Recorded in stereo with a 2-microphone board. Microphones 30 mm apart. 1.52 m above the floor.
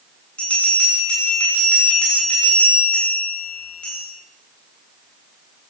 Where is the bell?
50° left (ahead or behind), 8 m.